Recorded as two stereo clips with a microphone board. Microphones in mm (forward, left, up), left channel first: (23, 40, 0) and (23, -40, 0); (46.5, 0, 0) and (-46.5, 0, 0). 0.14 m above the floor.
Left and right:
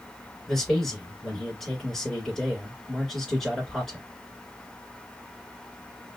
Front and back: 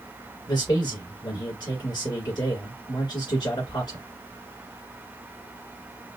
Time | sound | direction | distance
0.5 | a man speaking | 5° left | 2.5 m